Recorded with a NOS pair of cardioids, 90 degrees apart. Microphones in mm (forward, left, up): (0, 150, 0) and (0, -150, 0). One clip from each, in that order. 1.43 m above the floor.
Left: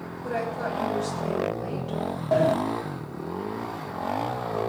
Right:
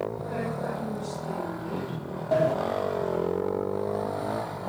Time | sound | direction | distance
0.2 | a woman speaking | 55° left | 9.5 m
2.3 | a sliding door | 15° left | 0.9 m